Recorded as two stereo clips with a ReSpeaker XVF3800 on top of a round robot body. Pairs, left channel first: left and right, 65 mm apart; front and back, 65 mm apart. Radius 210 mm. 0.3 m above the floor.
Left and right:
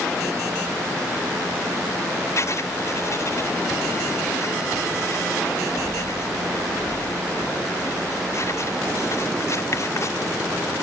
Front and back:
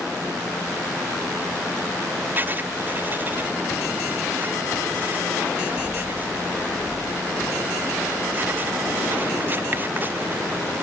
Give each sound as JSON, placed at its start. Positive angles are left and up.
{"t": 2.4, "sound": "writing", "azimuth_deg": 125}